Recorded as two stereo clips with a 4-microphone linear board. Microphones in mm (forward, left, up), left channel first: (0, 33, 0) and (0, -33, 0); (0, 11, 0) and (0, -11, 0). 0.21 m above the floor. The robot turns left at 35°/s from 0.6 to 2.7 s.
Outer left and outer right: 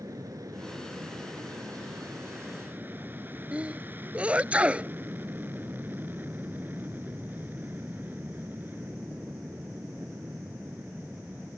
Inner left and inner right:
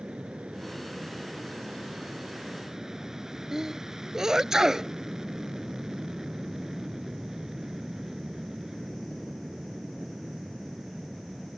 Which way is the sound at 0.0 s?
75° right.